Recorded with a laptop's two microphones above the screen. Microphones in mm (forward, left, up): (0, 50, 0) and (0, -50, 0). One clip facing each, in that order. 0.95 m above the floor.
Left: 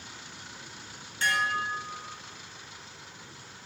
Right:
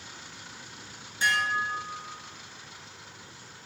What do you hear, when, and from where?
1.2 s dishes clattering: 15° right (ahead or behind), 0.6 m